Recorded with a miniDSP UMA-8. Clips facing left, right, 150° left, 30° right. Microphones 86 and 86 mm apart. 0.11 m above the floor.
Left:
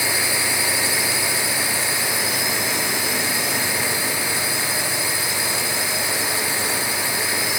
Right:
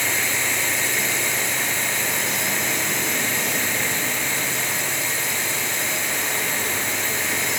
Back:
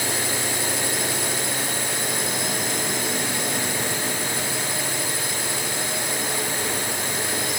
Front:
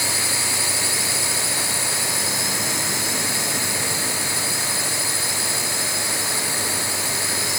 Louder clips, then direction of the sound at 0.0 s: Left 1 dB, back 1 dB; 170° left.